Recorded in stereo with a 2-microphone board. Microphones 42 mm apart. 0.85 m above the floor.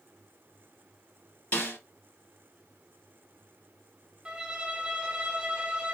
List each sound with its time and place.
1.5 s a snare drum: 35° left (ahead or behind), 3 m
4.2 s a violin: 25° right (ahead or behind), 1.1 m